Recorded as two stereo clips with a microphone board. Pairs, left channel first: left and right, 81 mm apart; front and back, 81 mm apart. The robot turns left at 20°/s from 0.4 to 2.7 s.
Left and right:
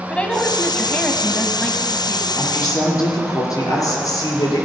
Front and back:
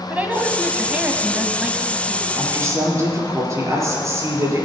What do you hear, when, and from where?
0.1 s a woman speaking: 145° left, 1.1 m; by 2.3 s 105° left, 1.1 m
2.4 s a woman speaking: 135° left, 4 m; by 4.7 s 130° left, 4 m